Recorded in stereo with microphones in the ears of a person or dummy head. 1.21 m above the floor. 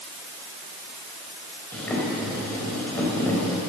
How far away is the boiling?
About 4 m.